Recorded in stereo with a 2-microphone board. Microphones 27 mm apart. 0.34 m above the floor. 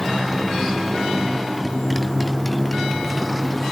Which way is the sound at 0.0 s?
Centre (ahead or behind).